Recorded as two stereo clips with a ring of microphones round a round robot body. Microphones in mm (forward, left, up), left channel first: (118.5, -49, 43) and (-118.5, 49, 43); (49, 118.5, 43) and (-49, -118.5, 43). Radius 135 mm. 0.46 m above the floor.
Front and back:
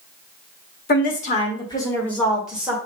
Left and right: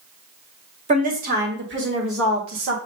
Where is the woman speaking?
60° right, 1.6 m; by 2.8 s 120° right, 2.0 m.